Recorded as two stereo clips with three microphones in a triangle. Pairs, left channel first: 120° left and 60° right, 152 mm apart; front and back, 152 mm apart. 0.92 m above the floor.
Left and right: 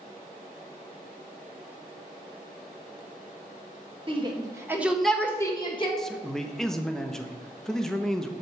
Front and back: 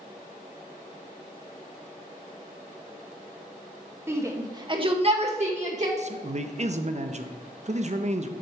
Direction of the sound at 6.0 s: 155° right.